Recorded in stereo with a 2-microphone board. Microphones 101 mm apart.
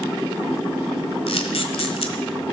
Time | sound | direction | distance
1.3 | a camera shutter | 75° left (ahead or behind) | 1.6 m